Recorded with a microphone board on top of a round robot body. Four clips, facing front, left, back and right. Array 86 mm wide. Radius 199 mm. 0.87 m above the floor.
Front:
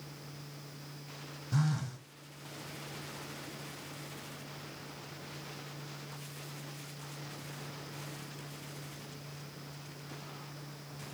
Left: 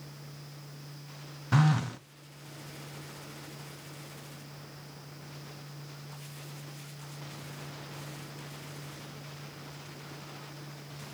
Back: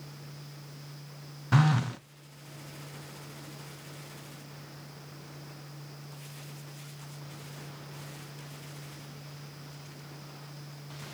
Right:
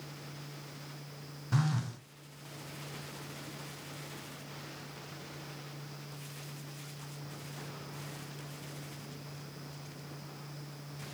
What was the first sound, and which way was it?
A phone buzzing, 150° left.